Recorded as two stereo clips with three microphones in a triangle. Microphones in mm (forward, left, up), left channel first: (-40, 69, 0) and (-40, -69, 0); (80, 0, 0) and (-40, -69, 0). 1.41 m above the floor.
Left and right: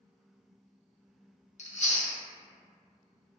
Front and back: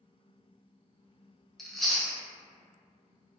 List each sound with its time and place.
1.6 s chewing: 120° left, 0.5 m